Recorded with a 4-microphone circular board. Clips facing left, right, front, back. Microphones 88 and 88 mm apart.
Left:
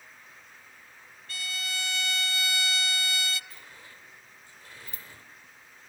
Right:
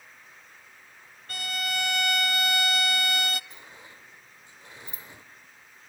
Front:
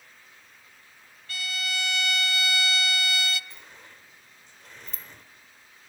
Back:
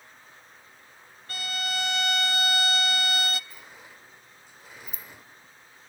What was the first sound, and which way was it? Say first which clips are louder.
A violin: right 5 dB, back 1 dB; 130° right.